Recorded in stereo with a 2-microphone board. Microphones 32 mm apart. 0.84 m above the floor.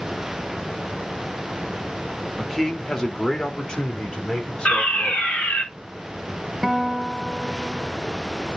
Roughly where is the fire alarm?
Left.